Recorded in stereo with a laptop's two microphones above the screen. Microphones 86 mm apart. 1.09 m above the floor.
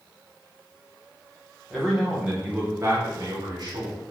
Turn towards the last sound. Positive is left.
turn(degrees=-60)  # may be behind; listen again after turning